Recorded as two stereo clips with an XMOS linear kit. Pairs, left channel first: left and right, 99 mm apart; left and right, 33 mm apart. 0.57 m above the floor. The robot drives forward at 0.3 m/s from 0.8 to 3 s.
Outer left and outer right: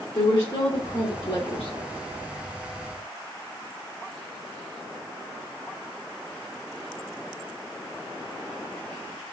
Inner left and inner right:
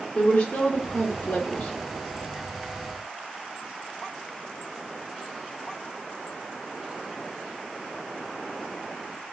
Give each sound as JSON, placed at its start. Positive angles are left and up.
{"t": 0.1, "sound": "a woman speaking", "side_deg": 55, "distance_m": 1.3}